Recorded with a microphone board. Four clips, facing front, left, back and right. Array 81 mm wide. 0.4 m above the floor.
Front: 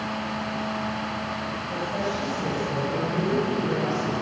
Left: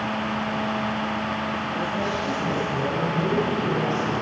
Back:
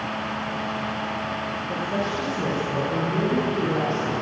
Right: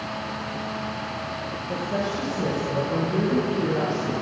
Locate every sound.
1.7 s a woman speaking: 130° right, 9 m